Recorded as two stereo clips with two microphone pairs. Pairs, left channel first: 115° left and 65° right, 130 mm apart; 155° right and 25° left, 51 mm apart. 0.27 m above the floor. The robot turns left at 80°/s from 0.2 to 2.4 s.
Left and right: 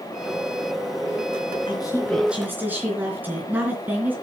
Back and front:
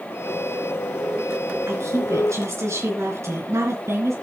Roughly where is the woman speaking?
Left.